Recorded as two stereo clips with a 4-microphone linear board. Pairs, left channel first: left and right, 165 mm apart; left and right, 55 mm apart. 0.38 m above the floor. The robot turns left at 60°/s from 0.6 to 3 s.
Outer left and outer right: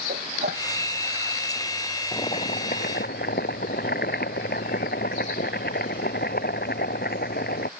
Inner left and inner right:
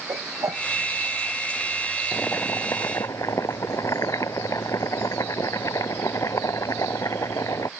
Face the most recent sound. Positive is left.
turn(degrees=100)